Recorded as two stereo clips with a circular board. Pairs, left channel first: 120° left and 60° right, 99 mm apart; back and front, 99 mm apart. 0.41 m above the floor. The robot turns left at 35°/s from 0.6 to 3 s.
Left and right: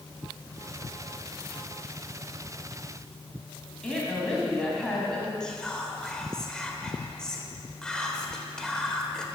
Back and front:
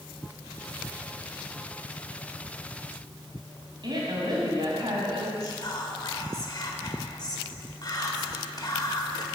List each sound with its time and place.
3.8 s a woman speaking: 40° left, 2.5 m
5.4 s whispering: 160° right, 1.0 m